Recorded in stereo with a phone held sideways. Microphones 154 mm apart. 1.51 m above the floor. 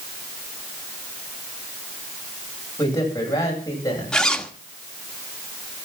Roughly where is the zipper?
Centre.